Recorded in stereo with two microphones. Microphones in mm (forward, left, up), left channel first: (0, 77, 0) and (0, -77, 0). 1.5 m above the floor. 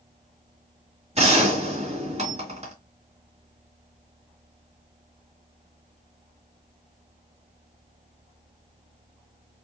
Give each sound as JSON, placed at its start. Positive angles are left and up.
{"t": 1.1, "sound": "a gunshot", "side_deg": -45, "distance_m": 1.8}